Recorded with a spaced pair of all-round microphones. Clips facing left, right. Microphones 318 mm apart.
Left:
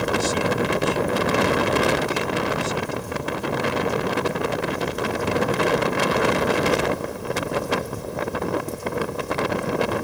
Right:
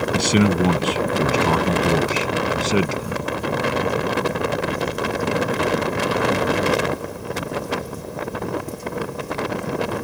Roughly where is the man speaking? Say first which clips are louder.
Right 8 dB; right.